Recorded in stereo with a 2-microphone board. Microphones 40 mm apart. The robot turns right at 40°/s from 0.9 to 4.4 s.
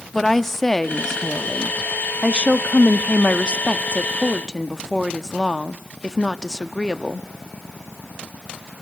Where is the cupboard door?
I don't hear a cupboard door.